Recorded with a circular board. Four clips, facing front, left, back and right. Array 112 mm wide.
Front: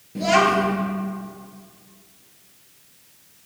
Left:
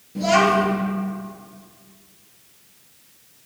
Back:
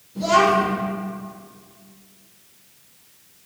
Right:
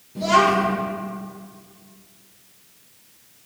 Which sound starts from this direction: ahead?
A child speaking, at 0.1 s.